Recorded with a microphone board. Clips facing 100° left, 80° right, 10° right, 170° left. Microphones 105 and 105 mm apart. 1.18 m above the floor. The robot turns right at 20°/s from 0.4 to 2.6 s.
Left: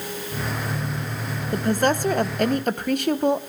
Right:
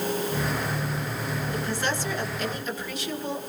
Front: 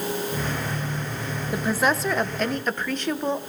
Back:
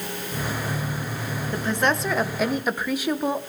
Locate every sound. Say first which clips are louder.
1.5 s a woman speaking: left 11 dB, front 1 dB; 70° left, 1.0 m; by 3.4 s 90° left, 1.0 m